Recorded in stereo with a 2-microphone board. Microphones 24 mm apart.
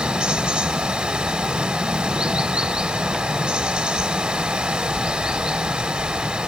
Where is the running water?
55° right (ahead or behind), 0.9 m.